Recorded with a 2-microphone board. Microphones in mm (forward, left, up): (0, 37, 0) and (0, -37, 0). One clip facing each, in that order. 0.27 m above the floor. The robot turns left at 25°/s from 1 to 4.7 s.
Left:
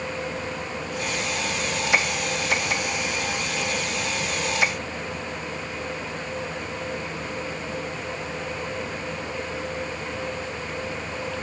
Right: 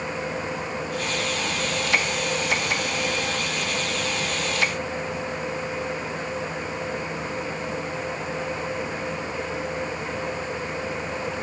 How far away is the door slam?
I don't hear a door slam.